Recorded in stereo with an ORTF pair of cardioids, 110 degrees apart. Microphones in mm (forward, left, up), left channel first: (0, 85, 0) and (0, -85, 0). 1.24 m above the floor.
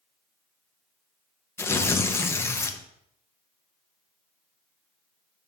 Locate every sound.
1.6 s tearing paper: 15° left, 0.8 m